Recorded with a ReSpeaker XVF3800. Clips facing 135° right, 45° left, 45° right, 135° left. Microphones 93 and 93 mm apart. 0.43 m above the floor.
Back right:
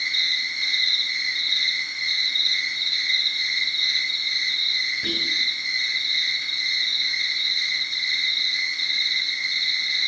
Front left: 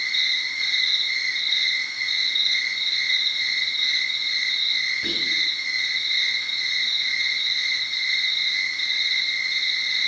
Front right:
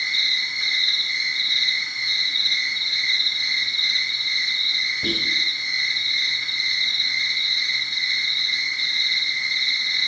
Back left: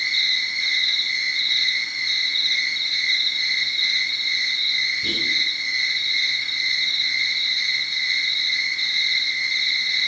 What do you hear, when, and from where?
0.0 s an insect: 10° left, 5 m
5.0 s whispering: 45° right, 3 m